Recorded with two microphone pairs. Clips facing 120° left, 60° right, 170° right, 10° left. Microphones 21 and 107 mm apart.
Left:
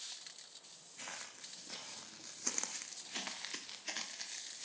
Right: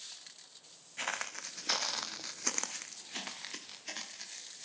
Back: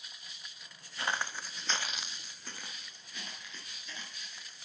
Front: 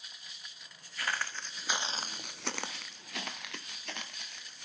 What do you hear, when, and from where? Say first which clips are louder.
1.0 s footsteps: right 11 dB, back 1 dB; 105° right, 1.1 m; by 4.7 s 35° left, 2.5 m